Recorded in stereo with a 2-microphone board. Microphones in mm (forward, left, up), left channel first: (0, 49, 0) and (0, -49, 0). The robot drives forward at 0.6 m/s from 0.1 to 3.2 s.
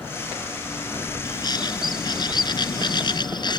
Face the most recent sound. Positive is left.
turn(degrees=50)  # may be behind; listen again after turning